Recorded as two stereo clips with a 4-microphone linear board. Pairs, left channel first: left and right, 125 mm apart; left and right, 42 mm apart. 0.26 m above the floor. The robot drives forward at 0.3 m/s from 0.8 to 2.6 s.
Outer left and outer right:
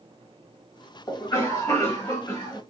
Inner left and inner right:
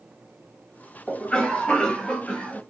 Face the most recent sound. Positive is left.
turn(degrees=25)  # may be behind; listen again after turning